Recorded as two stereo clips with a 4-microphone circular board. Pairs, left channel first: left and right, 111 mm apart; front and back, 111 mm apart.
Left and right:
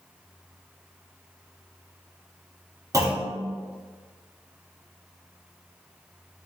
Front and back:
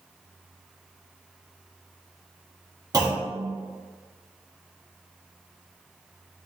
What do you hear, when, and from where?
2.9 s a clunk: 140° right, 0.5 m